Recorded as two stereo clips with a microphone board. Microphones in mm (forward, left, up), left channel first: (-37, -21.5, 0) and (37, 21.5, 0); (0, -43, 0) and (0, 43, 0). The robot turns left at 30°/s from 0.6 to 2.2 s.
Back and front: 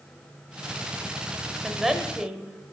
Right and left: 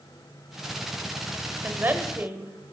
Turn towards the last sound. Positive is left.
turn(degrees=105)